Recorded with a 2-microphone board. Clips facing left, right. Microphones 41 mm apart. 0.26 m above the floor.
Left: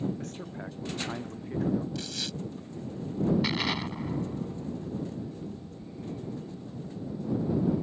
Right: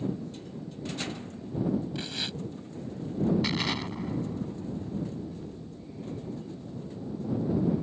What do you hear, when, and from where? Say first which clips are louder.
0.2 s a man speaking: left 1 dB; 85° left
1.9 s tearing paper: right 1 dB; 25° right (ahead or behind)
3.4 s an explosion: even; 5° left (ahead or behind)